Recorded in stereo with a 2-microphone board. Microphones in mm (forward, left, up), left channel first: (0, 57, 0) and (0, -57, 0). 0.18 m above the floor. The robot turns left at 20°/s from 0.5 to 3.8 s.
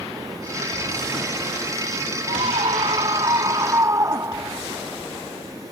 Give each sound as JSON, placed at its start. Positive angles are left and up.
{"t": 2.3, "sound": "a scream", "azimuth_deg": -120}